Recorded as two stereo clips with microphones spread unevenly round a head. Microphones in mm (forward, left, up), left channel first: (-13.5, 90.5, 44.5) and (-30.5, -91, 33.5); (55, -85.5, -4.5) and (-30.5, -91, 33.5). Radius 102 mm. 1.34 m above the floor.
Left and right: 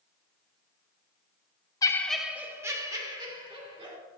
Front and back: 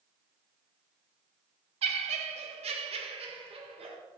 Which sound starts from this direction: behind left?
Laughter, at 1.8 s.